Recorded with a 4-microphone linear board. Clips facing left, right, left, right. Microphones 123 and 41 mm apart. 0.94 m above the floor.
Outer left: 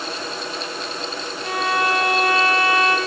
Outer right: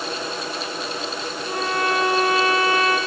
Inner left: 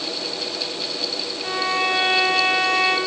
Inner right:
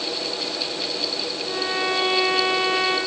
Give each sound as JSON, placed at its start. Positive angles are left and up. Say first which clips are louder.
{"t": 1.4, "sound": "a violin", "louder": "outer left 2 dB, inner left 4 dB", "side_deg": 85, "distance_m": 5.0}